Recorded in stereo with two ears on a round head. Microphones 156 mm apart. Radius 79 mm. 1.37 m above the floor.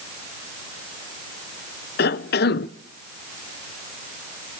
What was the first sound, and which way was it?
A cough, 65° left (ahead or behind).